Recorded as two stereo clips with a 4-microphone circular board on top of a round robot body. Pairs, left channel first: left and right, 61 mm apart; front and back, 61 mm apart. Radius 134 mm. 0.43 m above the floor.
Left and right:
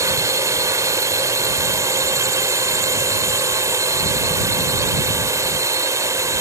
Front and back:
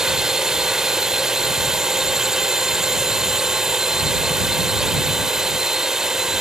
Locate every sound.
0.0 s a drone: 100° right